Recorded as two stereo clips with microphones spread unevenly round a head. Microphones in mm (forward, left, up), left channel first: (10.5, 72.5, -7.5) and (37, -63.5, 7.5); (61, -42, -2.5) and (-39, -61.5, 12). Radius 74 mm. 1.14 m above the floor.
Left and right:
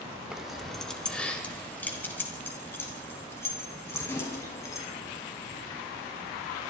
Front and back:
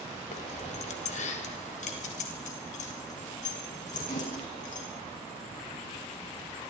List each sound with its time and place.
0.3 s keys jangling: 5° left, 2.5 m; by 4.8 s 30° left, 8 m